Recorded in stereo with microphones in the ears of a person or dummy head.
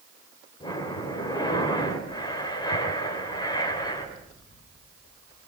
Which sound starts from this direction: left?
Breathing, at 0.6 s.